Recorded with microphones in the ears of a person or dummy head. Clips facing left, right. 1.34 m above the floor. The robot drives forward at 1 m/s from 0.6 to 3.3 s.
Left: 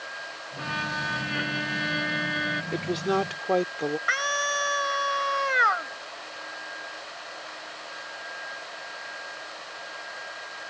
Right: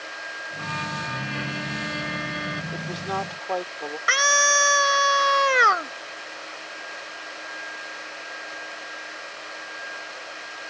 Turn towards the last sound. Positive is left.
turn(degrees=-65)  # may be behind; listen again after turning